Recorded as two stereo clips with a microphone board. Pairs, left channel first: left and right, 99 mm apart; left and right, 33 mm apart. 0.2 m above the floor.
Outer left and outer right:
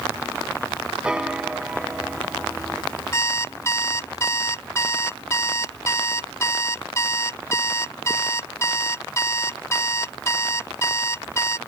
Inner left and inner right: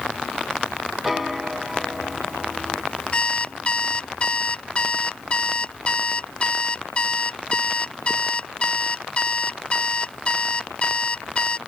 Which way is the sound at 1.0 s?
10° right (ahead or behind).